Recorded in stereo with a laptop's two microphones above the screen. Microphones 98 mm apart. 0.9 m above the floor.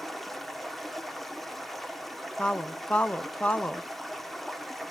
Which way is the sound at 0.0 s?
Centre (ahead or behind).